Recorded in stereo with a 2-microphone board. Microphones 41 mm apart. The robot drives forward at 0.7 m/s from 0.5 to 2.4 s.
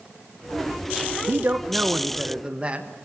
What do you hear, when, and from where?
1.3 s a man speaking: 60° right (ahead or behind), 0.8 m; by 2.9 s 30° right (ahead or behind), 1.4 m